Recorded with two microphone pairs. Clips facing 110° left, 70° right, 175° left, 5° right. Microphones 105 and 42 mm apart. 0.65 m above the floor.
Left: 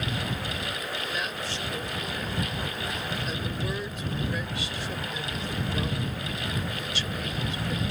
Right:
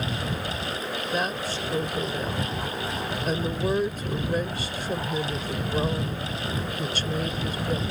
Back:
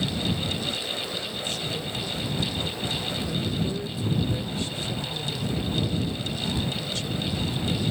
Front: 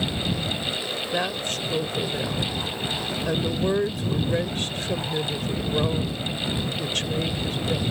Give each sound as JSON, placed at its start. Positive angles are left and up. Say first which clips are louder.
{"t": 1.1, "sound": "a woman speaking", "louder": "right 5 dB, front 5 dB", "azimuth_deg": -25}